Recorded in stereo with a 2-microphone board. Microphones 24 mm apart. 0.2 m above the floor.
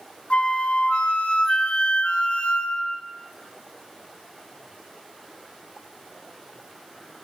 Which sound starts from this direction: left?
A flute, at 0.3 s.